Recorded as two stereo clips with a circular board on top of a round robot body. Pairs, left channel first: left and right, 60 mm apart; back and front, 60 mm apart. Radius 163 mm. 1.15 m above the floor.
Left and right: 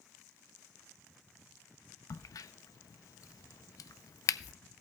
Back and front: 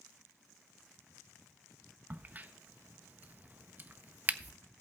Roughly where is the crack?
Ahead left.